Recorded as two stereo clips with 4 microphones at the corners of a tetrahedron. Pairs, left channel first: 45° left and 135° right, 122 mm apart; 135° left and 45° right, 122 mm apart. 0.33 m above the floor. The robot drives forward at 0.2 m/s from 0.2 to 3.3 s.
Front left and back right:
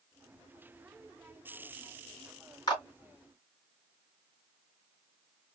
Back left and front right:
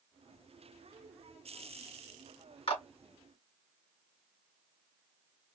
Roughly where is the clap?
Left.